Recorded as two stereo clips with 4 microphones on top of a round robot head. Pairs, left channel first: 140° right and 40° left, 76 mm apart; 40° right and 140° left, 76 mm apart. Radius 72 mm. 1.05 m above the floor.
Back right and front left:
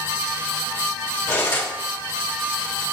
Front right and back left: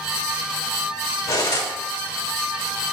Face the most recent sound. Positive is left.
turn(degrees=-85)